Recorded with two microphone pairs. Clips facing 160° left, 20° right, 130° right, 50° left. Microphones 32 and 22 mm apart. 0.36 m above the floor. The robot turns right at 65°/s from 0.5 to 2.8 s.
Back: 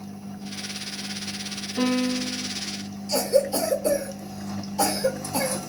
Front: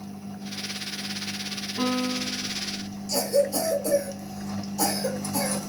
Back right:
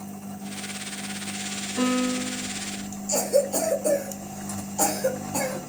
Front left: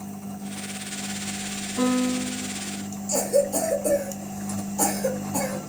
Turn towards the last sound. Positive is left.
turn(degrees=175)